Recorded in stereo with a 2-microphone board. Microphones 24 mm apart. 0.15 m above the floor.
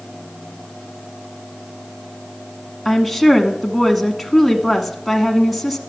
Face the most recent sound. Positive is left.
turn(degrees=0)  # may be behind; listen again after turning